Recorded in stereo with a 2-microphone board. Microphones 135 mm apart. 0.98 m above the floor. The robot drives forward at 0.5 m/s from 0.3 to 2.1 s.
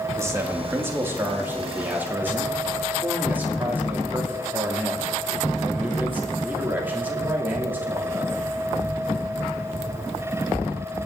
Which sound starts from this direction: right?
A man speaking, at 0.2 s.